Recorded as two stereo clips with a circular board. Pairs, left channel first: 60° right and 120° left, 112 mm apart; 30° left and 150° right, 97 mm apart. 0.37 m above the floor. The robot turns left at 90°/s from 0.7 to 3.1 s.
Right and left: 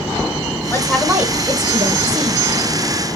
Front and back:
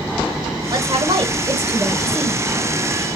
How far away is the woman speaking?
About 1.4 m.